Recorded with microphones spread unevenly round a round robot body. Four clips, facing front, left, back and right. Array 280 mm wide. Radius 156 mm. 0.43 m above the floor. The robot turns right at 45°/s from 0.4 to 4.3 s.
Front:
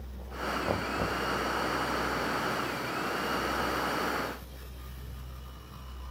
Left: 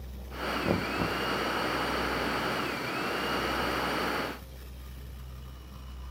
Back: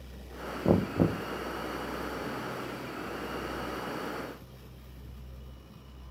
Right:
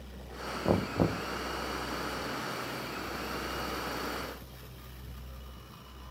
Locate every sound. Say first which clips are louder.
0.7 s knocking: right 3 dB, back 9 dB; 175° left; by 1.2 s 155° right